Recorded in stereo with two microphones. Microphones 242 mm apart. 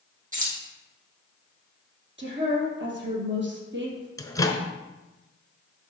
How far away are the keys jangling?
About 3 m.